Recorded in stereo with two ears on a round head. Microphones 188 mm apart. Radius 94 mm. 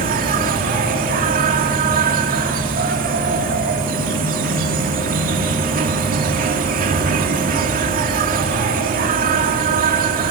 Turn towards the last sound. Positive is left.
turn(degrees=-40)  # may be behind; listen again after turning